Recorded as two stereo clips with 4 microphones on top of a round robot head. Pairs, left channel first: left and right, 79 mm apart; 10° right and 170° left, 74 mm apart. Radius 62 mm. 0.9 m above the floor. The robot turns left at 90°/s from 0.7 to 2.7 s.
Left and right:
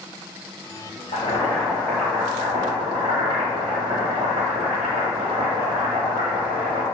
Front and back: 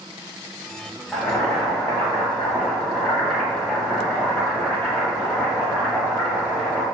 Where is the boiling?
60° left, 1.0 m; by 6.8 s 80° right, 1.0 m.